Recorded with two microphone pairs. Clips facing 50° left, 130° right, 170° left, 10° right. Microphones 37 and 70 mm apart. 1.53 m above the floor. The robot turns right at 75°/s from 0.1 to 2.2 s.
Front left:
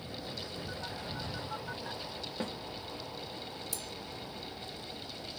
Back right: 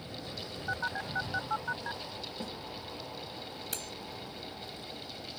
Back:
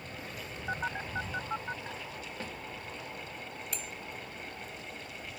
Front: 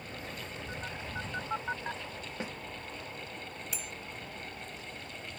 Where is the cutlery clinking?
95° right.